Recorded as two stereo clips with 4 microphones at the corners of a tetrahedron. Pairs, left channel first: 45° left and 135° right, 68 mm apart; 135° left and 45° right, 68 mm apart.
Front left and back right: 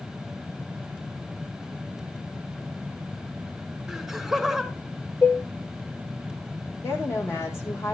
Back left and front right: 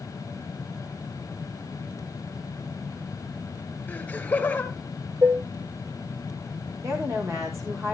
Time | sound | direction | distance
3.9 | laughter | 145° left | 1.6 m
5.2 | dishes clattering | 5° right | 2 m
6.8 | a woman speaking | 5° right | 5 m